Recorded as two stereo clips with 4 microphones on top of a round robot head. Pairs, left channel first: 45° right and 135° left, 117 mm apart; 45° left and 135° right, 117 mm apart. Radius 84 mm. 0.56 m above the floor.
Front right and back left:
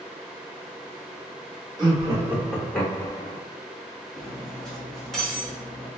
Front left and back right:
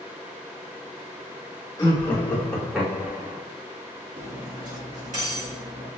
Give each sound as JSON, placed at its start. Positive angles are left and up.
{"t": 1.8, "sound": "laughter", "azimuth_deg": 105, "distance_m": 1.3}
{"t": 4.2, "sound": "cutlery clinking", "azimuth_deg": -135, "distance_m": 1.6}